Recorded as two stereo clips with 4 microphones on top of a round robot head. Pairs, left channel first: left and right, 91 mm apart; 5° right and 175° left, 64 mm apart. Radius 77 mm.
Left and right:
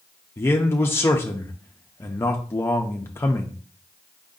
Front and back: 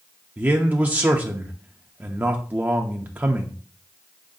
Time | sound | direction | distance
0.4 | a man speaking | 135° left | 0.6 m